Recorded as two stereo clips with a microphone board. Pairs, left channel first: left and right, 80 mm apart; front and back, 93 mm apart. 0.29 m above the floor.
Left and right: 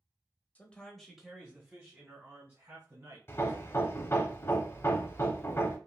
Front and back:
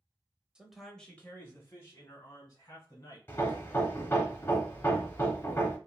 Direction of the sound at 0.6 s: 115° left.